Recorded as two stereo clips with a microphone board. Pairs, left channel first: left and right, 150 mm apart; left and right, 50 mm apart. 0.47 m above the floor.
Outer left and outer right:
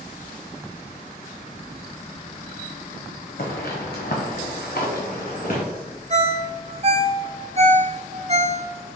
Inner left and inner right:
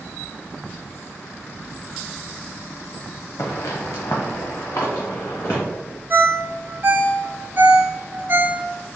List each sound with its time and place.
3.4 s footsteps: 70° left (ahead or behind), 1.4 m; by 5.6 s 60° left (ahead or behind), 3 m
6.1 s a ringtone: 40° right (ahead or behind), 0.6 m